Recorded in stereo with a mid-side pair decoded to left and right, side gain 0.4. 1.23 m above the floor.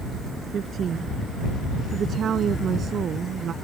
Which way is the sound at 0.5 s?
55° right.